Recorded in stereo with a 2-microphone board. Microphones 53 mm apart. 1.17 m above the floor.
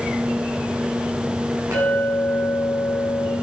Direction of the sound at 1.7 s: 65° right (ahead or behind).